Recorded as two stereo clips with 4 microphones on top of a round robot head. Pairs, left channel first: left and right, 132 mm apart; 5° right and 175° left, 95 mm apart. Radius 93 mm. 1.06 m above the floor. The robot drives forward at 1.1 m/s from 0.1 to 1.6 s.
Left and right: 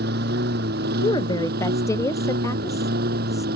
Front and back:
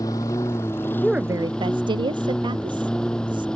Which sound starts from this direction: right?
A lawn mower, at 0.0 s.